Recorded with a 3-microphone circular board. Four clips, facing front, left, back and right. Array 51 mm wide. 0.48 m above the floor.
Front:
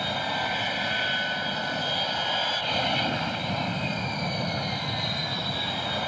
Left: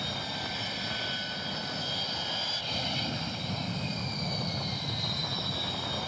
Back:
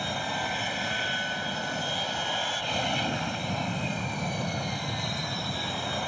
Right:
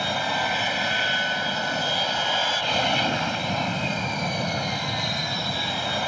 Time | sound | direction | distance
0.0 | an aircraft | 80° right | ?